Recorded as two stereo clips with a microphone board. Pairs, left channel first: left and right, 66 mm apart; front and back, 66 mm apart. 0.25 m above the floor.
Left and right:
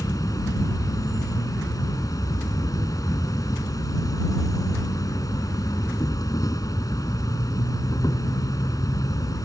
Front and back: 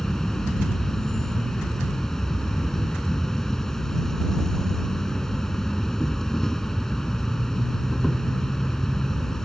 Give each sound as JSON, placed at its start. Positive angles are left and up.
{"t": 0.0, "sound": "an insect", "azimuth_deg": 80}